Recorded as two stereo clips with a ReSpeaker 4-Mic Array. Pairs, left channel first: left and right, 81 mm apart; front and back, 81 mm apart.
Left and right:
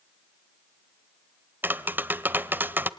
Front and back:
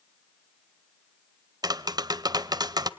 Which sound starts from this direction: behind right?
Tapping, at 1.6 s.